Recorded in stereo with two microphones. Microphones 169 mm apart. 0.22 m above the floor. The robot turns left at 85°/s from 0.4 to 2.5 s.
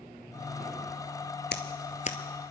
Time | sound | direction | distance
1.5 | scissors | 85° left | 1.0 m